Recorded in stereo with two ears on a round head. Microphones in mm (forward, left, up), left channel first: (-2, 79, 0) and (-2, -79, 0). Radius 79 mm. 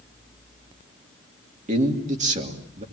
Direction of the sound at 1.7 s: 40° right (ahead or behind).